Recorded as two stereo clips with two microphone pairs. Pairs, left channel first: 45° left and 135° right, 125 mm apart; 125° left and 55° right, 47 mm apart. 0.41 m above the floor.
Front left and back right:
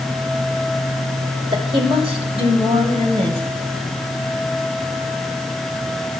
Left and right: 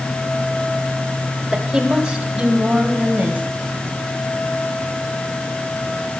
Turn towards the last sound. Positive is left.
turn(degrees=-110)